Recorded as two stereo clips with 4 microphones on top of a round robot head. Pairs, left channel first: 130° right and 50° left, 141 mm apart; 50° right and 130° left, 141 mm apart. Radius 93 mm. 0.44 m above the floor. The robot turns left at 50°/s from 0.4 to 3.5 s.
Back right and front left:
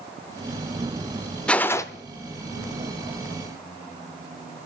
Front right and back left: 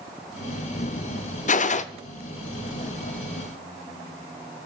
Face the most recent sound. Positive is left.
turn(degrees=-150)